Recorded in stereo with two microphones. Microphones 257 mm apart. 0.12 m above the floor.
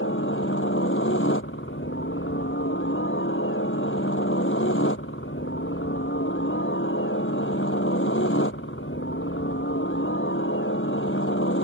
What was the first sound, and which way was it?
A helicopter, 50° left (ahead or behind).